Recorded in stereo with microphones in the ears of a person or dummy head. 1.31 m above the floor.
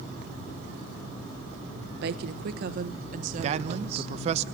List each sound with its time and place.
2.0 s a woman speaking: 70° right (ahead or behind), 1.2 m; by 4.1 s 40° right (ahead or behind), 2.0 m
3.4 s a man speaking: 40° right (ahead or behind), 0.6 m